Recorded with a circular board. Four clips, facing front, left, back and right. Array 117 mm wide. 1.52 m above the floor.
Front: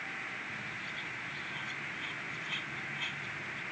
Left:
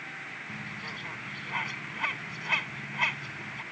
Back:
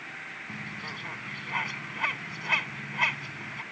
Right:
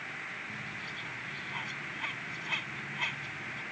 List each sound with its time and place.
0.5 s a bird: 150° left